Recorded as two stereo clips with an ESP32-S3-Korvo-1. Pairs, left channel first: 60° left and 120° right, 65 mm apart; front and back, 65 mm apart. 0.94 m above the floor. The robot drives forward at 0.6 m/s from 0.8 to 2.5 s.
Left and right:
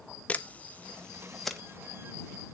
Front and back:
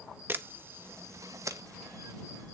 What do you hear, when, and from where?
0.3 s a camera shutter: 130° left, 0.7 m; by 1.6 s 150° left, 1.0 m